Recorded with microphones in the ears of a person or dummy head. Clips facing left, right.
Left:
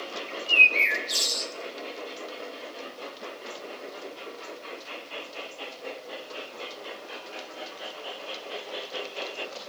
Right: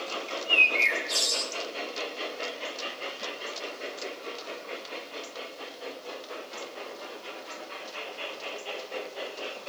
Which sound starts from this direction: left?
A bird, at 0.3 s.